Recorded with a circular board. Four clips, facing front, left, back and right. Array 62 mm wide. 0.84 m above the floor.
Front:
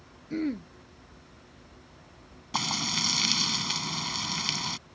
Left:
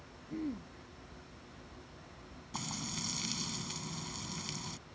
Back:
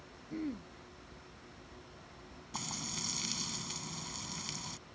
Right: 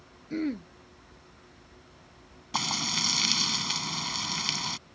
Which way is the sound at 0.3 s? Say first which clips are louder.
Right 8 dB, front 9 dB; 55° right.